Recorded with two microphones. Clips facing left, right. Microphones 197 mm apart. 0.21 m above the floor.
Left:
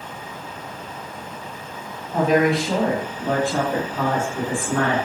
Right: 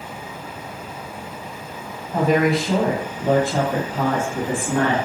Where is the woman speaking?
5° left (ahead or behind), 1.1 m; by 5.0 s 35° right (ahead or behind), 1.5 m.